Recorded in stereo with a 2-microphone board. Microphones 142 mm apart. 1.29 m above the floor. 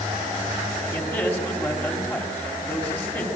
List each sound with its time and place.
0.9 s a man speaking: 15° left (ahead or behind), 3.5 m